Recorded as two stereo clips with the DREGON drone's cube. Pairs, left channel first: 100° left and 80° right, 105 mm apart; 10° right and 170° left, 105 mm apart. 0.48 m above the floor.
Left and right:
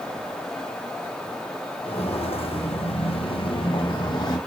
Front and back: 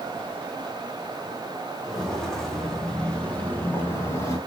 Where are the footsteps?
80° left, 6 m; by 4.4 s 45° left, 2.5 m.